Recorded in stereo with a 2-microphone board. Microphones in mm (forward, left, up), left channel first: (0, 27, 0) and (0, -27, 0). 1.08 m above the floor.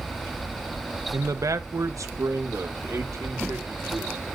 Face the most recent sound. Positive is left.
turn(degrees=-70)  # may be behind; listen again after turning